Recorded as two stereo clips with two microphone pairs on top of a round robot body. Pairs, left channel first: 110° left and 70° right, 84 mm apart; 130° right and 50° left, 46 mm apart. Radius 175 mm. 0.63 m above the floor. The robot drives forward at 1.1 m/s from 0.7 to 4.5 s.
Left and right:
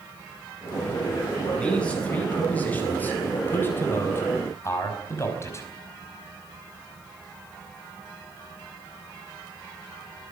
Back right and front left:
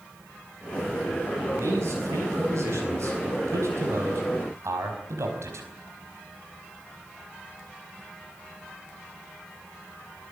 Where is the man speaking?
35° left, 7.5 m; by 5.7 s 55° left, 5 m.